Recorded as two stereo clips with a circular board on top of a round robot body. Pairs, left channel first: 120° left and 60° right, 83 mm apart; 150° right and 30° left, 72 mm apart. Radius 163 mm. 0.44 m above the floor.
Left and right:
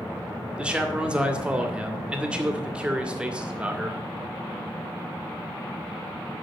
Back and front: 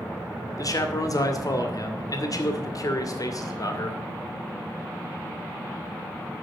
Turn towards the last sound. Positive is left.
turn(degrees=-135)